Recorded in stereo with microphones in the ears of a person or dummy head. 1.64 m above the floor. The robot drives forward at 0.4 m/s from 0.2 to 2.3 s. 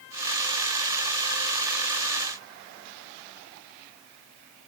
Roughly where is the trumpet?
I don't hear a trumpet.